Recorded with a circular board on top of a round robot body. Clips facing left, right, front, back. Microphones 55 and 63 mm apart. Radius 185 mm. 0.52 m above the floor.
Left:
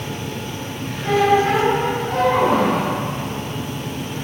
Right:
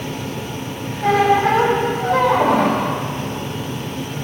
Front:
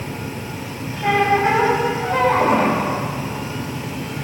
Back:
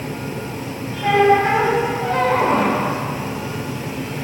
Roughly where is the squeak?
Right.